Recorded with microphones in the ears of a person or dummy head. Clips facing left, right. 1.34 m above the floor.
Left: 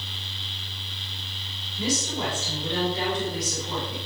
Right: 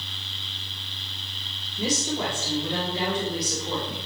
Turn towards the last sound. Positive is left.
turn(degrees=-25)  # may be behind; listen again after turning